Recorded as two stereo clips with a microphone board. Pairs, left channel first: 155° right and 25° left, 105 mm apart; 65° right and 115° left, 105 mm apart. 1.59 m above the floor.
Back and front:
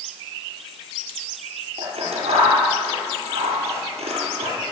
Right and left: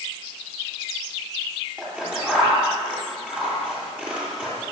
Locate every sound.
1.8 s scissors: 35° left, 10 m